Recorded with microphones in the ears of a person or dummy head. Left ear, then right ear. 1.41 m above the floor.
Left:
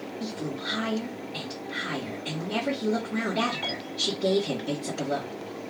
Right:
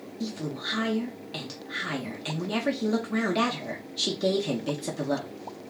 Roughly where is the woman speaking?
Right.